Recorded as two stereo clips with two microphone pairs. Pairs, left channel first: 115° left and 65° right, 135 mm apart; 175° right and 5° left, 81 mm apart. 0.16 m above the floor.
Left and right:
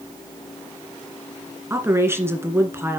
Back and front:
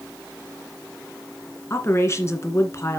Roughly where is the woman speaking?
Behind right.